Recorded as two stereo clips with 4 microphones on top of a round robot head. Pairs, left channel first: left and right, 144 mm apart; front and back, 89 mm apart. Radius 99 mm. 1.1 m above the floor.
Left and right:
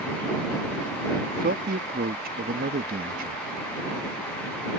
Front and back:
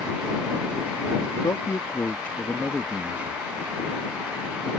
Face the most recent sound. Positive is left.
turn(degrees=-110)